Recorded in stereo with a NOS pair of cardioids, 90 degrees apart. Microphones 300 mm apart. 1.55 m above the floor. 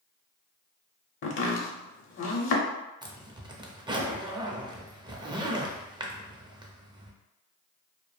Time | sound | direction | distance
1.2 | chopping | 45° left | 0.7 m
3.0 | a zipper | 15° right | 0.5 m